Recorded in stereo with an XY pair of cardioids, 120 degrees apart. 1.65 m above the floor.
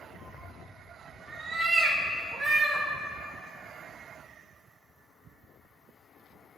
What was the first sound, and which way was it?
A cat meowing, 35° right.